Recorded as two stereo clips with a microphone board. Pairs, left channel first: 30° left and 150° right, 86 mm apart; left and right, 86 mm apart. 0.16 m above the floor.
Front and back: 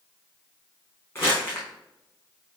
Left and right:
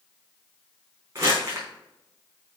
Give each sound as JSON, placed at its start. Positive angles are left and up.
{"t": 1.1, "sound": "crumpling", "azimuth_deg": -30, "distance_m": 3.5}